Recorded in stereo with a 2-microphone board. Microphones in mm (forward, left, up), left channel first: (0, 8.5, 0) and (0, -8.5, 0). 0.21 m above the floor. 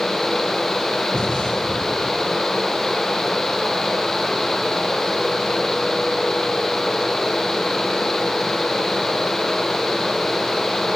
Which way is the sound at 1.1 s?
65° left (ahead or behind).